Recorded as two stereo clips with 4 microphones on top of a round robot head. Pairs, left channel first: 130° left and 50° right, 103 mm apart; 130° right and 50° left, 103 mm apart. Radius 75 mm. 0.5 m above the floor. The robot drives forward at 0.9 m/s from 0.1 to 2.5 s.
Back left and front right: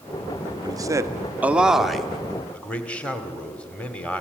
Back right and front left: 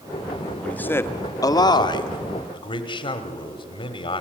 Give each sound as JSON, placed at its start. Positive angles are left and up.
{"t": 0.6, "sound": "a man speaking", "azimuth_deg": -55, "distance_m": 1.3}